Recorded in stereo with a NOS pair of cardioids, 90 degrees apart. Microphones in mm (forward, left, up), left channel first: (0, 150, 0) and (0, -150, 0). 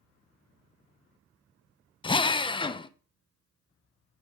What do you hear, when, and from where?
2.0 s a drill: 15° left, 0.6 m